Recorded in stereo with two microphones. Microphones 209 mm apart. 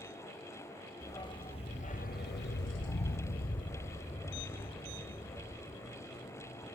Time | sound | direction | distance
1.0 | a dog barking | 15° left (ahead or behind) | 1.8 m